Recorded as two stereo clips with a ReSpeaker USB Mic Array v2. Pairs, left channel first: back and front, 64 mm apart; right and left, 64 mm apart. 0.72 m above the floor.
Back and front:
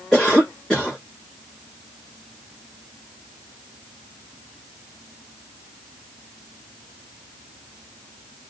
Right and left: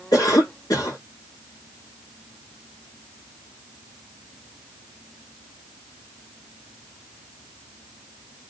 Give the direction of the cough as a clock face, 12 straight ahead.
3 o'clock.